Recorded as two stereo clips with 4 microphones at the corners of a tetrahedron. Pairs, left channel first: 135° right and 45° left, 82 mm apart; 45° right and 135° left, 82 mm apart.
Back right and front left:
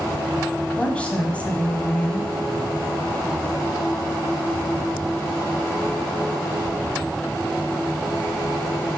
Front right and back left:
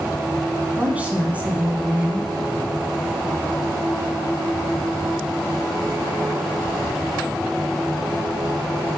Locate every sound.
0.8 s a woman speaking: 175° left, 1.2 m